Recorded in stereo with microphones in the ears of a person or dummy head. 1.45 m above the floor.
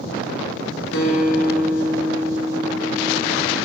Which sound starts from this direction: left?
A guitar, at 0.9 s.